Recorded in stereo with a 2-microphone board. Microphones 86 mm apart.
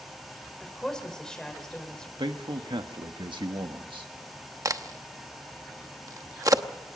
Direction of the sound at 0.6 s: 10° left (ahead or behind).